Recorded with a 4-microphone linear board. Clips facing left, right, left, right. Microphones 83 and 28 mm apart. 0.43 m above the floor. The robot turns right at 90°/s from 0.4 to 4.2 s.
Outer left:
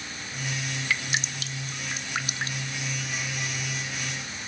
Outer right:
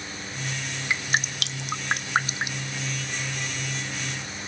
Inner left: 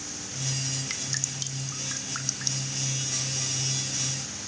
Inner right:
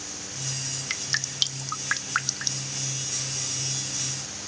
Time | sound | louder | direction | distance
0.9 | dripping | outer right 4 dB, inner right 4 dB | 20° right (ahead or behind) | 0.5 m